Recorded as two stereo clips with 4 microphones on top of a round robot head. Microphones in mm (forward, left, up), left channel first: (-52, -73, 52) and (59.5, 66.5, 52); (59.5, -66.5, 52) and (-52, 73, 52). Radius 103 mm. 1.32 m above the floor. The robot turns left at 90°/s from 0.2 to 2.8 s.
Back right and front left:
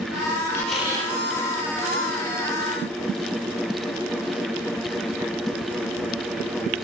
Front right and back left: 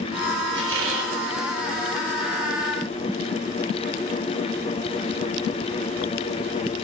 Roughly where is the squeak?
Behind.